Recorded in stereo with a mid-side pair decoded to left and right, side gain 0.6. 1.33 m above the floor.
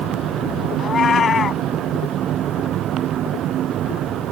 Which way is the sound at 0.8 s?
35° left.